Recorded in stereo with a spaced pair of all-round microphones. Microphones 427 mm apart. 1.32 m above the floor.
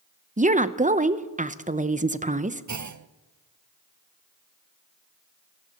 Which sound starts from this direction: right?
A clunk, at 2.7 s.